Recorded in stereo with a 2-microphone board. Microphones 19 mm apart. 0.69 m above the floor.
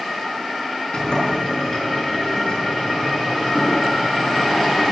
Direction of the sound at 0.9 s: 45° left (ahead or behind).